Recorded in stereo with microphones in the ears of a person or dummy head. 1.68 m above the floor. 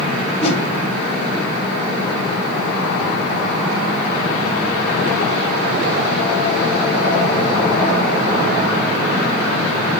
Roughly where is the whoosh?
Left.